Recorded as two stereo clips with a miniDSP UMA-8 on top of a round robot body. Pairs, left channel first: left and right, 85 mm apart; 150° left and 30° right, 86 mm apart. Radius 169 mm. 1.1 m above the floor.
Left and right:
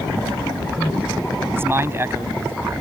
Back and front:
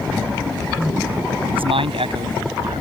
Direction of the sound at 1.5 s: 25° right.